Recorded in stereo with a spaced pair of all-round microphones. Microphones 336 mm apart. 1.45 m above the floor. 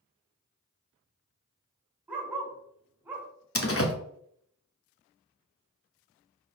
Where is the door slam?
40° left (ahead or behind), 1.3 m.